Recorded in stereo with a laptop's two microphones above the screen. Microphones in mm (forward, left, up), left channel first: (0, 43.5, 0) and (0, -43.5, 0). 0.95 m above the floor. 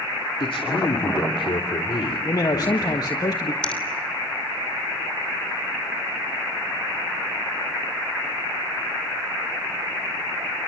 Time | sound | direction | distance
0.4 | a man speaking | 80° left | 2.5 m
2.2 | a man speaking | 45° left (ahead or behind) | 1.3 m
3.6 | a finger snap | 10° left (ahead or behind) | 3 m